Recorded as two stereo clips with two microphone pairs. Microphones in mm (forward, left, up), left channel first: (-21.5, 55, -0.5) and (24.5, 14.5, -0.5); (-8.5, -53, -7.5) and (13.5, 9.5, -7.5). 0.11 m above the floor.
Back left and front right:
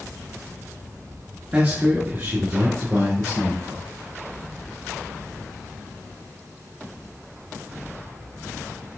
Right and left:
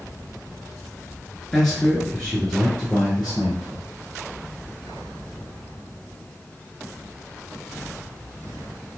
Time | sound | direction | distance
1.5 | a man speaking | 35° right | 1.1 m